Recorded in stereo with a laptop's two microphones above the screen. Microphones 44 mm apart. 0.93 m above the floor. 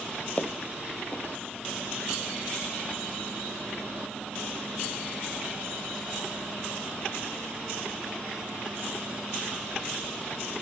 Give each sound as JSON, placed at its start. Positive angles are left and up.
{"t": 0.4, "sound": "footsteps", "side_deg": 25, "distance_m": 1.8}